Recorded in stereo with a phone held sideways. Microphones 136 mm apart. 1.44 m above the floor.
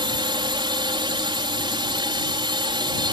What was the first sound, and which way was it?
A drone, 35° right (ahead or behind).